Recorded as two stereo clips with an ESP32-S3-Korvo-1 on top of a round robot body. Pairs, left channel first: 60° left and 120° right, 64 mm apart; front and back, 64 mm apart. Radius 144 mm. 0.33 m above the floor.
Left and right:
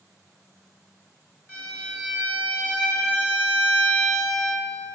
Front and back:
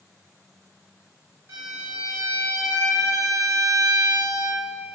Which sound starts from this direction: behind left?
A violin, at 1.5 s.